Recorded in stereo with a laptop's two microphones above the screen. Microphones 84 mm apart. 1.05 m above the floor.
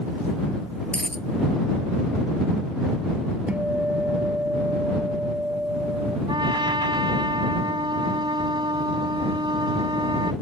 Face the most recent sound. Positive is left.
turn(degrees=-75)  # may be behind; listen again after turning